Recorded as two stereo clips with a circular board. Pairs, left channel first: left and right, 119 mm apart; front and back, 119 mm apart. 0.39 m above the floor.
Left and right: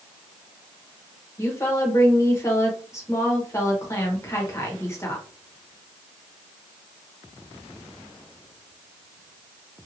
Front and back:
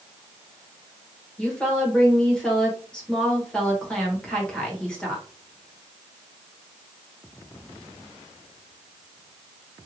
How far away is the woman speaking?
About 1.0 m.